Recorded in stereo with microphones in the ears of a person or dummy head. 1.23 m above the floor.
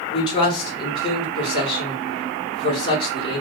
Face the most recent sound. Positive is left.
turn(degrees=25)  # may be behind; listen again after turning